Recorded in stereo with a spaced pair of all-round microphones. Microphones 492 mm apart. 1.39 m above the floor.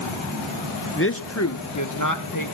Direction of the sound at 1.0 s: 25° left (ahead or behind).